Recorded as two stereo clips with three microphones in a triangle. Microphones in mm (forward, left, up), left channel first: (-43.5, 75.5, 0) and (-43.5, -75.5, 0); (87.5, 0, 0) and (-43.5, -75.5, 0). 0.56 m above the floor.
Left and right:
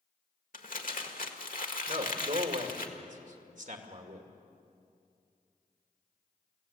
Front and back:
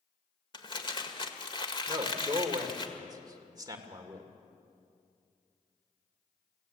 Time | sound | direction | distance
0.5 | crumpling | 85° left | 1.7 m
1.9 | a man speaking | 90° right | 2 m